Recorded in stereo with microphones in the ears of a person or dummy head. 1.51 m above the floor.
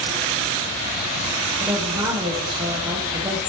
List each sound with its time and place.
1.6 s a woman speaking: 20° right (ahead or behind), 1.0 m